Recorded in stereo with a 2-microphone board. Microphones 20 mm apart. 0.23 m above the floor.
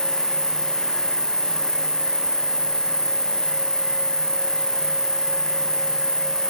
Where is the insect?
55° left (ahead or behind), 3.5 m.